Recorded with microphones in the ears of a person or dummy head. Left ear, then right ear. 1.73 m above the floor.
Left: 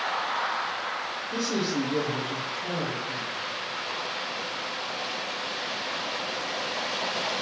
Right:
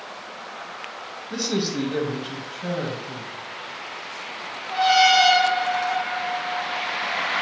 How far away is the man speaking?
About 1.0 m.